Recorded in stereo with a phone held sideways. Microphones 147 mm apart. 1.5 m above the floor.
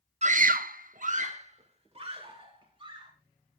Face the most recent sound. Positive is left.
turn(degrees=-35)  # may be behind; listen again after turning